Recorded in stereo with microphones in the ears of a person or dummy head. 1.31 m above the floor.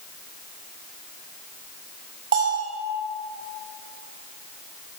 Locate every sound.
2.3 s a bell: 50° right (ahead or behind), 4.5 m